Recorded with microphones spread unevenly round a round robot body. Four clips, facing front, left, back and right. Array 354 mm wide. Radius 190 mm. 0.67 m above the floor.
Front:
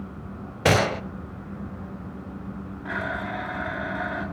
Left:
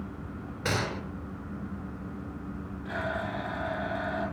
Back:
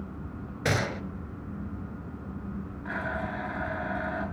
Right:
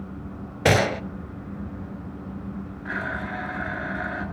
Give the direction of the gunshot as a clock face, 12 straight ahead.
2 o'clock.